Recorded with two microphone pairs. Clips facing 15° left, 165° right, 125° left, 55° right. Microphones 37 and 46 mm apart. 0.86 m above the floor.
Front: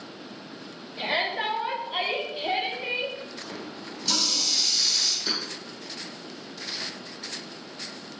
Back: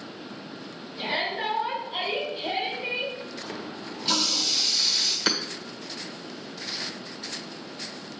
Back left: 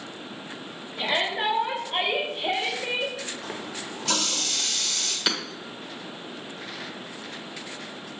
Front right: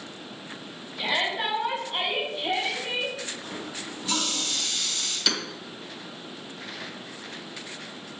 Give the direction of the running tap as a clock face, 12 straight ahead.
8 o'clock.